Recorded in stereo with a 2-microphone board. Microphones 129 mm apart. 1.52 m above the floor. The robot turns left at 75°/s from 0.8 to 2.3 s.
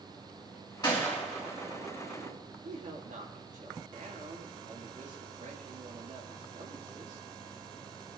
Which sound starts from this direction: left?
A gunshot, at 0.8 s.